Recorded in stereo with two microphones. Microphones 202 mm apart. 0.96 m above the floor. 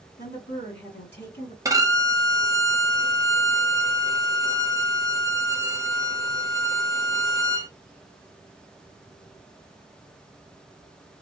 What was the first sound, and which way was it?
A woman speaking, 60° left (ahead or behind).